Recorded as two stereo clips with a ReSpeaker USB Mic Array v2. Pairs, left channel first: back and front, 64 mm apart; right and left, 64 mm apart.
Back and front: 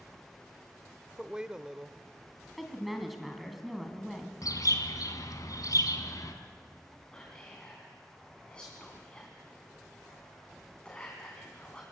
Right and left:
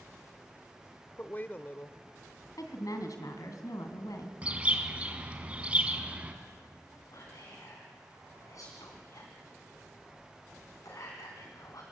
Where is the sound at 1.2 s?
65° right, 0.9 m.